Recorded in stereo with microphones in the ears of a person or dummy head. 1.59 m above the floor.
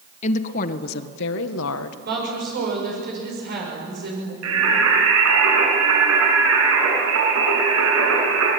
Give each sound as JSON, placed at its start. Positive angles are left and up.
{"t": 0.2, "sound": "a woman speaking", "side_deg": 40, "distance_m": 1.5}
{"t": 2.0, "sound": "a woman speaking", "side_deg": -55, "distance_m": 6.5}
{"t": 4.4, "sound": "singing", "side_deg": -80, "distance_m": 7.5}